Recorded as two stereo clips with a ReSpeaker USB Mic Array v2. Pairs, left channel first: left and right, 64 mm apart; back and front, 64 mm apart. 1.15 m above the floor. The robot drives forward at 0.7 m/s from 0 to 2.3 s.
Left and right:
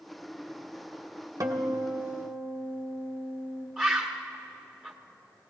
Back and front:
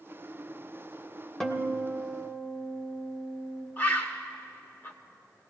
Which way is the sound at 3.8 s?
160° right.